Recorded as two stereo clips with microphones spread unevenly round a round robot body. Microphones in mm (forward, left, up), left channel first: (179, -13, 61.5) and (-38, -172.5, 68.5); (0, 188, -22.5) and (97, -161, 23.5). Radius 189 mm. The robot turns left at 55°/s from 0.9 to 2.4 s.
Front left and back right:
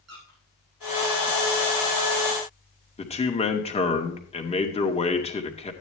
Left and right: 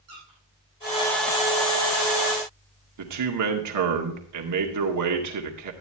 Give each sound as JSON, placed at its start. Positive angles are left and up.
{"t": 0.1, "sound": "a squeak", "azimuth_deg": -120, "distance_m": 6.0}
{"t": 3.0, "sound": "a man speaking", "azimuth_deg": -30, "distance_m": 2.0}